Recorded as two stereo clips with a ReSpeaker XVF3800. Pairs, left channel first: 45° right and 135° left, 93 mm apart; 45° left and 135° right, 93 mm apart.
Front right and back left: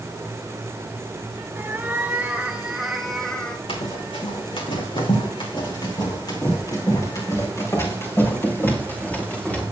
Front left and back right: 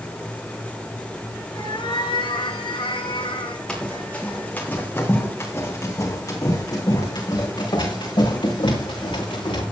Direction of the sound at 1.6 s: 70° left.